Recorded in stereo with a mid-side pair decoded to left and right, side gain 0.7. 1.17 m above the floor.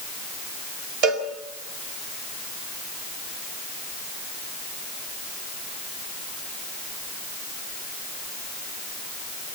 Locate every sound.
1.0 s a cowbell: 60° right, 4 m